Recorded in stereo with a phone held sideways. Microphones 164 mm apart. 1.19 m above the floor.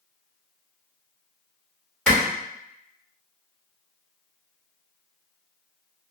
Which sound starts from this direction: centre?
A clap, at 2.1 s.